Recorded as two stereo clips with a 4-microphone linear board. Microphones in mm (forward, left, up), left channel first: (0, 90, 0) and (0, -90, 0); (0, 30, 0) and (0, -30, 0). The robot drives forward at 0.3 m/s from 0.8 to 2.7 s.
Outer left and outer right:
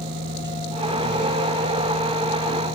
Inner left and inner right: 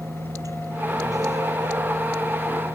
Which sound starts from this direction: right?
A vehicle, at 0.0 s.